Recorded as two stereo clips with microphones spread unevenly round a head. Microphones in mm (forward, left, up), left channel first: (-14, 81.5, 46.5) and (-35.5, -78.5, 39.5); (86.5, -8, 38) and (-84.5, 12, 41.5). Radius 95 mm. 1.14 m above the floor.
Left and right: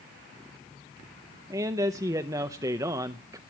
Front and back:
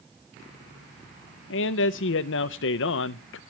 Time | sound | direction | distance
1.5 | a man speaking | 25° right | 0.6 m